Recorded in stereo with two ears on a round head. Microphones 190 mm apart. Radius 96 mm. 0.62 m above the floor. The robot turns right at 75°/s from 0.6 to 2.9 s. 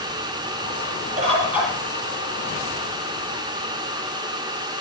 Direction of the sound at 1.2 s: 35° right.